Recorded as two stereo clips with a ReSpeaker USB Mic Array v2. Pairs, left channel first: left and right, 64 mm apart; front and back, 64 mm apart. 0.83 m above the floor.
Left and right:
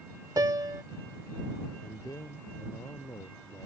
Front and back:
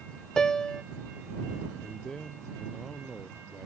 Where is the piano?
80° right.